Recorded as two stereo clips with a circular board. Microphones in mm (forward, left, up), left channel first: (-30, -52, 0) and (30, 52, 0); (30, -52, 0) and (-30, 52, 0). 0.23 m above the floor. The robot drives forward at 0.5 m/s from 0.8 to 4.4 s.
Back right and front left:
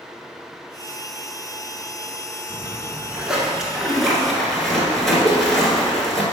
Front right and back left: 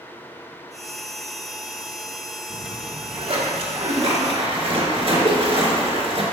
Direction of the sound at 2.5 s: 130° left.